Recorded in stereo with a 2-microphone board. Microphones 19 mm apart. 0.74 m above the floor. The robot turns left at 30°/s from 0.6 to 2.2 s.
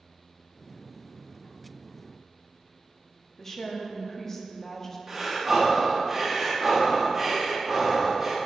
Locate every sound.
3.4 s a woman speaking: 20° left (ahead or behind), 0.7 m
5.1 s breathing: 20° right (ahead or behind), 1.3 m